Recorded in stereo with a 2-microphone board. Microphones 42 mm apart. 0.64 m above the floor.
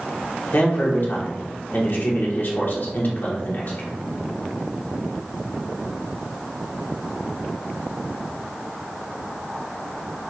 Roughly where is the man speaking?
Left.